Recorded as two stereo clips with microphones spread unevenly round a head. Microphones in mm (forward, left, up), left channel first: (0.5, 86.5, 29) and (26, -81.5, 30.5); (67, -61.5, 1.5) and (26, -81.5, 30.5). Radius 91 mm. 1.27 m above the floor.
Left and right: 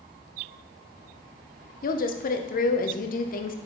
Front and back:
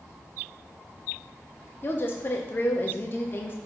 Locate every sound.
1.8 s a woman speaking: 60° left, 0.8 m